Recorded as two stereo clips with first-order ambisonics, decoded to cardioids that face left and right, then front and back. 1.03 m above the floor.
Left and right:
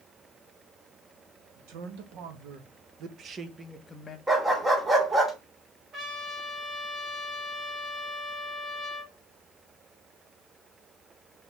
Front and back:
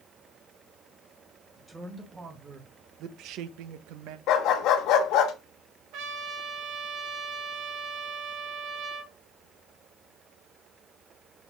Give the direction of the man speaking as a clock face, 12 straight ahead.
3 o'clock.